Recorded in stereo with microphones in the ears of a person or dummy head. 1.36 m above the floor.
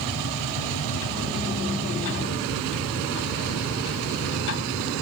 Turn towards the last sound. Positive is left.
turn(degrees=70)  # may be behind; listen again after turning